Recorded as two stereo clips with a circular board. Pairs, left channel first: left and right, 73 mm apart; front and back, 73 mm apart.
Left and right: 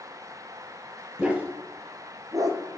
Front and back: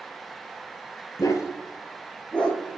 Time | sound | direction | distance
1.2 | a dog barking | 20° right | 1.0 m